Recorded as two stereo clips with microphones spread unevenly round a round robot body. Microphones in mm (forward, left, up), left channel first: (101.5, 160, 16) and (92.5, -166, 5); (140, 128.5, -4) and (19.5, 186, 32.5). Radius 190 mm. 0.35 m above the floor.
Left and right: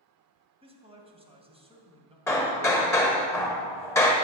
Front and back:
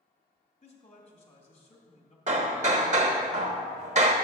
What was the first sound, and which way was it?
A man speaking, 20° right.